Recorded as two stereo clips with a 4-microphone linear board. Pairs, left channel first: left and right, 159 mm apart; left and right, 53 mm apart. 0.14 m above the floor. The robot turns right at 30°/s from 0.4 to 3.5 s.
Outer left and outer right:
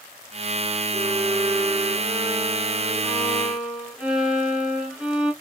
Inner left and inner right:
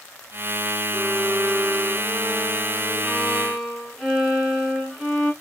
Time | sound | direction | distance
0.9 | a violin | 80° right | 1.5 m